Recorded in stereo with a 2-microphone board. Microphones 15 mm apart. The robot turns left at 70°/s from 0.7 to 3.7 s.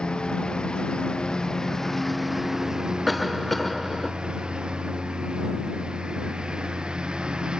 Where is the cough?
Centre (ahead or behind); by 4.1 s 15° left (ahead or behind).